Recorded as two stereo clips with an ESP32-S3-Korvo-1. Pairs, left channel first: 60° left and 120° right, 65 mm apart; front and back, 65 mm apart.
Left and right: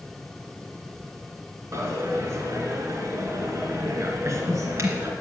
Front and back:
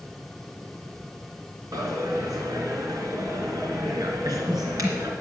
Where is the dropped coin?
160° right, 3 m.